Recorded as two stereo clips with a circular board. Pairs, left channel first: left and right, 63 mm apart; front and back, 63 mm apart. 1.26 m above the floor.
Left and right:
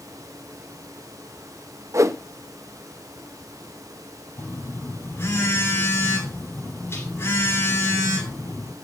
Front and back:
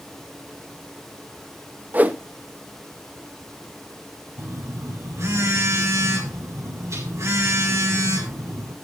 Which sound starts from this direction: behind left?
A phone buzzing, at 4.4 s.